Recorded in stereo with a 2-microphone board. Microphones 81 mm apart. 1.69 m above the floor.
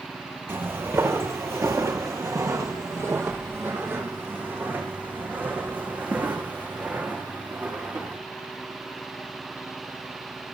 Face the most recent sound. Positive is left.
turn(degrees=-15)  # may be behind; listen again after turning